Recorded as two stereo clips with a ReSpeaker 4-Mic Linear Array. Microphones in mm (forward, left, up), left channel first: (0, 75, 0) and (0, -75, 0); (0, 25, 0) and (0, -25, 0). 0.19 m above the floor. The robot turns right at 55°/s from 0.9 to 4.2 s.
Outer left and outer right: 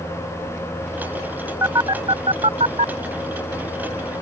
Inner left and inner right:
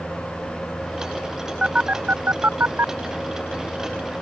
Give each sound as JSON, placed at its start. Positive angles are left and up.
{"t": 1.6, "sound": "a phone buzzing", "side_deg": -20}